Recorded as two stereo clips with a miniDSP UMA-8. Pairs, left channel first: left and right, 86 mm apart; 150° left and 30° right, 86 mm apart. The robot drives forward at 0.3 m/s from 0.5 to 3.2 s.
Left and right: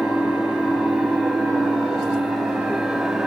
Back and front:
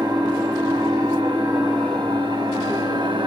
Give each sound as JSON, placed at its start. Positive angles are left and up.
{"t": 0.0, "sound": "an engine running", "azimuth_deg": 0, "distance_m": 1.4}